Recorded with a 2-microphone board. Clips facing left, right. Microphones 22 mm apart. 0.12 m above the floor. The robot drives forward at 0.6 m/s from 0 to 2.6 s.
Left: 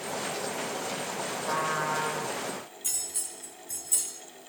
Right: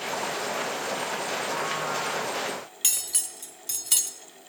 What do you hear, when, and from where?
1.4 s a trumpet: 20° left (ahead or behind), 8.5 m; by 2.3 s 25° left (ahead or behind), 8 m
2.8 s cutlery clinking: 70° right (ahead or behind), 1.8 m